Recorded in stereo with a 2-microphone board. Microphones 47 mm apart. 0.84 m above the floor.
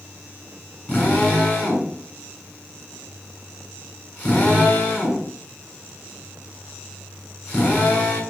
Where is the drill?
25° left (ahead or behind), 8 m.